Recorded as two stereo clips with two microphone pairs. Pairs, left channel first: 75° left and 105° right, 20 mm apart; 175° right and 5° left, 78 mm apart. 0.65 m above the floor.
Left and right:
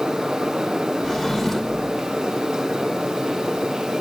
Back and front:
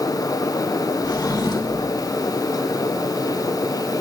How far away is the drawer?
About 0.9 m.